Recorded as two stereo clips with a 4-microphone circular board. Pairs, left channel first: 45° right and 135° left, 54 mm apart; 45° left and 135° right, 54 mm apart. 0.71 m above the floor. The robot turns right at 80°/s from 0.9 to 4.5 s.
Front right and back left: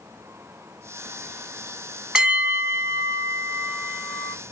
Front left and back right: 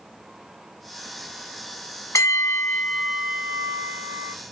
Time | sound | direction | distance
2.1 | a bell | 60° left | 0.8 m